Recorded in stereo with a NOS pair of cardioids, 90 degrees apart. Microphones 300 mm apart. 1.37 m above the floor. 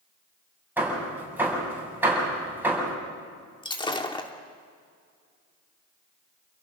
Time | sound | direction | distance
0.8 | hammering | 5° right | 7 m
3.6 | breaking glass | 15° left | 2 m